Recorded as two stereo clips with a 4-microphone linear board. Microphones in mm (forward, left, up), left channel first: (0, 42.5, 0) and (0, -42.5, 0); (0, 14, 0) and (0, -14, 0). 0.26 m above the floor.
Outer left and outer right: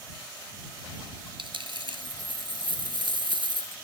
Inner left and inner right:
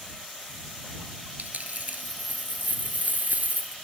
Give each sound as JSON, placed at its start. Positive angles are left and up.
{"t": 1.4, "sound": "a dropped coin", "side_deg": -80}